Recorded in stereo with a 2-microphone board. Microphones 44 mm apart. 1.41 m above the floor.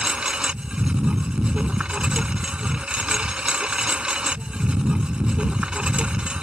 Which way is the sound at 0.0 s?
25° right (ahead or behind).